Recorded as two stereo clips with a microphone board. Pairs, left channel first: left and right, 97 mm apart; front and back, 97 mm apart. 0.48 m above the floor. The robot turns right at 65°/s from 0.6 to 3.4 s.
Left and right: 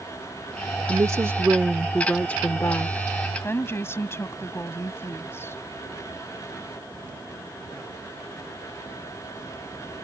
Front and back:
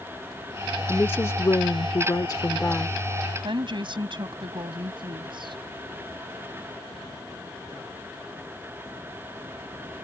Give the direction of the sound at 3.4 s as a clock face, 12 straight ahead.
7 o'clock.